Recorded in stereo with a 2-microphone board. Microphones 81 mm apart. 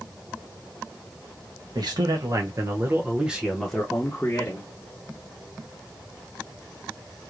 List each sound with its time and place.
1.8 s a man speaking: 60° right (ahead or behind), 1.1 m; by 4.7 s 30° left (ahead or behind), 1.2 m